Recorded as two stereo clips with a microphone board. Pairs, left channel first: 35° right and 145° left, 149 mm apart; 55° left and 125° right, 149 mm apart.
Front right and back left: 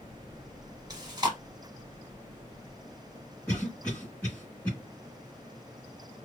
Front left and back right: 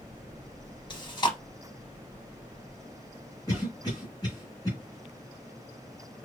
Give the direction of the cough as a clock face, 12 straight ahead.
11 o'clock.